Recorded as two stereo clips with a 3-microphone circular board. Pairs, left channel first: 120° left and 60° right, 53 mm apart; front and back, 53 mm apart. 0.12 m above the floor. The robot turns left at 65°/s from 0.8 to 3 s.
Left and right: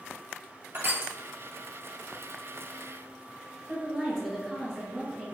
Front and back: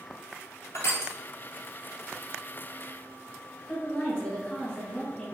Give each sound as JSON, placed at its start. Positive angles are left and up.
{"t": 0.7, "sound": "crushing", "azimuth_deg": -15, "distance_m": 0.8}
{"t": 3.7, "sound": "a woman speaking", "azimuth_deg": 30, "distance_m": 1.5}